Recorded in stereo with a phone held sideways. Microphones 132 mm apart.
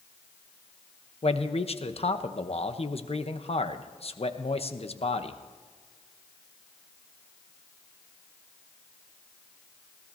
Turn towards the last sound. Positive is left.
turn(degrees=50)  # may be behind; listen again after turning